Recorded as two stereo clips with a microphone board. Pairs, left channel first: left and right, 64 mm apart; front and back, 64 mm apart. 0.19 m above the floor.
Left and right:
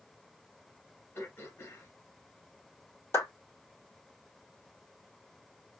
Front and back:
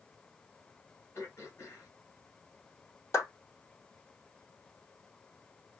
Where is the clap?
45° left, 3.5 m.